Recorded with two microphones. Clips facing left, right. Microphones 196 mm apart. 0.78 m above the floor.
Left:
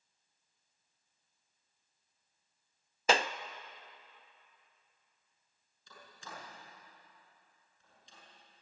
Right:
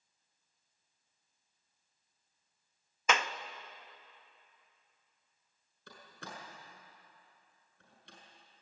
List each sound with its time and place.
3.1 s a clap: 35° left (ahead or behind), 0.6 m
5.9 s a door slam: 70° right (ahead or behind), 5.5 m